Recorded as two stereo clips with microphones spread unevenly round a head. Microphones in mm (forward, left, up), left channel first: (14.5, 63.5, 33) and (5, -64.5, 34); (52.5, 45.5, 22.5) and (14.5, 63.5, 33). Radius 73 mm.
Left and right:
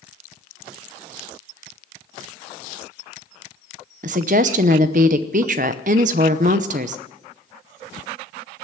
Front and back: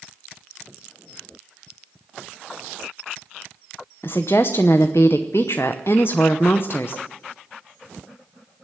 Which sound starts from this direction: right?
A woman speaking, at 4.0 s.